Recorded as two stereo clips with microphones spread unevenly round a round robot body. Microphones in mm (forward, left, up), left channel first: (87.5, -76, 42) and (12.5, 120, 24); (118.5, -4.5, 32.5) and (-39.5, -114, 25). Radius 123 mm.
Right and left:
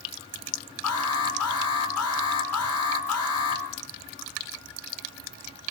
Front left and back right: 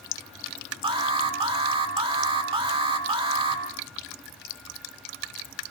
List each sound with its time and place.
0.8 s an alarm: 85° right, 5.5 m